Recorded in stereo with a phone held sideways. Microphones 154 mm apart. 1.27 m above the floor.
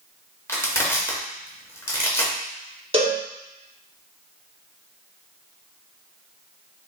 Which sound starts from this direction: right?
A cowbell, at 2.9 s.